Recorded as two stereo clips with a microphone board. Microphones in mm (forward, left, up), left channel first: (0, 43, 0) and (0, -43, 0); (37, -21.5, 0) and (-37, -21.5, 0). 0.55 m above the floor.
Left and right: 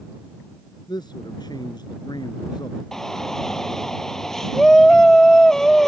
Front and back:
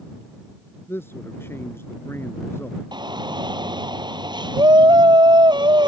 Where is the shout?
175° left.